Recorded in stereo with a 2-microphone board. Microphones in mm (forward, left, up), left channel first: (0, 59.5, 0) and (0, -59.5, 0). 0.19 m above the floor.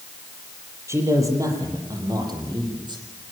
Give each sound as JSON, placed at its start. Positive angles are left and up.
{"t": 0.9, "sound": "a man speaking", "side_deg": -25, "distance_m": 7.0}